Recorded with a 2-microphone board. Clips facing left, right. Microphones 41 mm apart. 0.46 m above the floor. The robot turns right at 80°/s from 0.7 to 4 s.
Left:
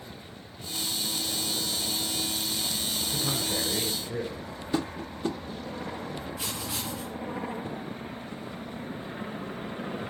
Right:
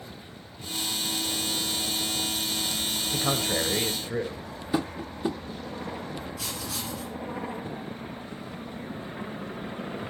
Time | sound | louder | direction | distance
3.1 | a man speaking | right 5 dB | 105° right | 1.9 m
4.7 | tapping | right 2 dB | 15° right (ahead or behind) | 0.6 m
6.4 | writing | even | 25° left (ahead or behind) | 6 m